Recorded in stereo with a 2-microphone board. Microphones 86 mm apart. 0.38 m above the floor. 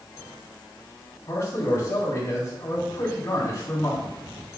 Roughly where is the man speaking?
Left.